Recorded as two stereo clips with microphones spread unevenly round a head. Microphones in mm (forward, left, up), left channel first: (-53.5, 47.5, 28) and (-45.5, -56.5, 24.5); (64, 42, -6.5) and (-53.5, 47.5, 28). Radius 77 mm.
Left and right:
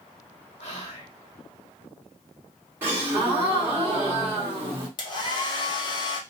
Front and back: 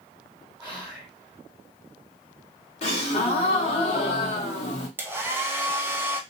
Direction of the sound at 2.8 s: 15° right.